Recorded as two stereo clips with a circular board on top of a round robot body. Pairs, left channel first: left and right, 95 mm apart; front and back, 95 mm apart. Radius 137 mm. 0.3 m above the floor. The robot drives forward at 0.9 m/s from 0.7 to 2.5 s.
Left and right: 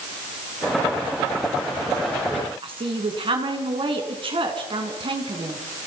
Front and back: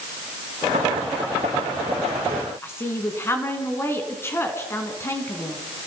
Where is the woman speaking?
65° right, 4 m.